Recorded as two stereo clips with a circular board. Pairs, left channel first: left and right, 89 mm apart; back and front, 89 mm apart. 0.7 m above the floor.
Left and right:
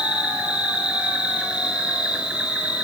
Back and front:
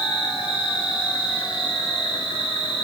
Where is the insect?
170° right, 6 m.